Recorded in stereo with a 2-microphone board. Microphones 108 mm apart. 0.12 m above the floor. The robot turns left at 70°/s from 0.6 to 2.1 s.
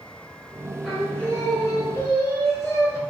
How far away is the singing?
About 0.8 m.